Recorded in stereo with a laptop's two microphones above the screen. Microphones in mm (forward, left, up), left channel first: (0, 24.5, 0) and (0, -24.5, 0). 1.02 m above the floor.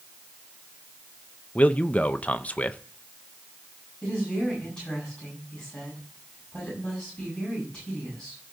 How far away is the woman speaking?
About 6 m.